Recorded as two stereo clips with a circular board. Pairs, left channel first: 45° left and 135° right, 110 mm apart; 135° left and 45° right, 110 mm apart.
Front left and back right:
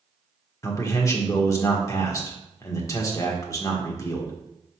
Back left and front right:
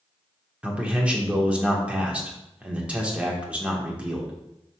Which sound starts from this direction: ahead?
A man speaking, at 0.6 s.